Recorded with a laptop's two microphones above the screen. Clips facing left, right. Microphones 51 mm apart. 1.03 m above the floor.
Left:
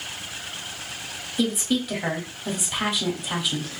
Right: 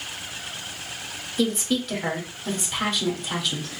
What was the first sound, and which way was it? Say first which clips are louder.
A woman speaking: even; 5° left (ahead or behind).